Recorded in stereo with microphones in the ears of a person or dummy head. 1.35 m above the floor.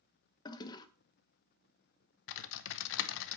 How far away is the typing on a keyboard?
About 0.7 m.